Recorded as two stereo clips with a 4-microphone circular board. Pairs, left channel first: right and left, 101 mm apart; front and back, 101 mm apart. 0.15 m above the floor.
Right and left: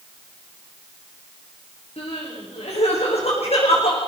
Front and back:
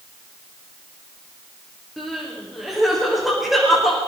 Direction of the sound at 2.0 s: 90° right.